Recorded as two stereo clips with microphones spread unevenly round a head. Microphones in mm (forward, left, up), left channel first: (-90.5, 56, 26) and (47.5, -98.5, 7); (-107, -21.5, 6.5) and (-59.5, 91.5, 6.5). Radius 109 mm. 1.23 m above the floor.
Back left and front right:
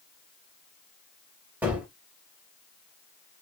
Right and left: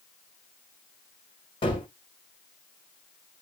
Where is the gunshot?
135° right, 1.1 m.